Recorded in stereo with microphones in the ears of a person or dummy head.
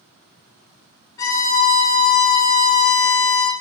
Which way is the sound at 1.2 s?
20° left (ahead or behind).